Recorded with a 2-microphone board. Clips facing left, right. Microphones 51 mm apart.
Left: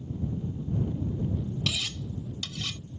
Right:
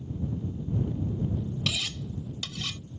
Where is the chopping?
I don't hear chopping.